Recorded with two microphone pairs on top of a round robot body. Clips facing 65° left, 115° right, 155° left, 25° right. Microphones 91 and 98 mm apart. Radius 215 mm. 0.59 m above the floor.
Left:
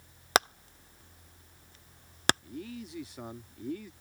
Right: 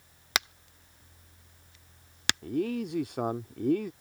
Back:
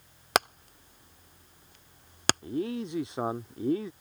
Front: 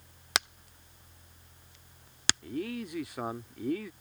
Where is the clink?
I don't hear a clink.